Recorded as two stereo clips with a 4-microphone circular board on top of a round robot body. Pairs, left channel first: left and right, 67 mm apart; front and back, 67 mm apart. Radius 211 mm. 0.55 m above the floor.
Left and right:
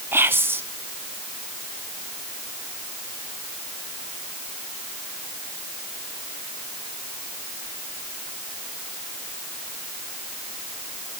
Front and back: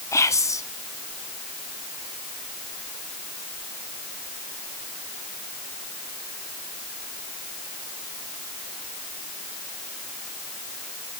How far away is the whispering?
About 1.8 m.